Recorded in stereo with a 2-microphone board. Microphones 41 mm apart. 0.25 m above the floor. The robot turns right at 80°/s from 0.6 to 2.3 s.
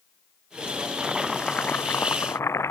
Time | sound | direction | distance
1.0 | boiling | 20° right | ?